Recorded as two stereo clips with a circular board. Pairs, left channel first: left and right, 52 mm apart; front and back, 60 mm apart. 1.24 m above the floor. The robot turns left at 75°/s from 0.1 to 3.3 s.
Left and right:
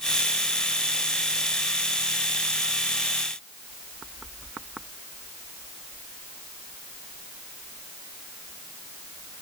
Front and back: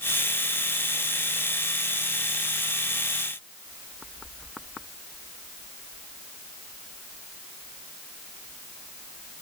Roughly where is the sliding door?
No sliding door in this recording.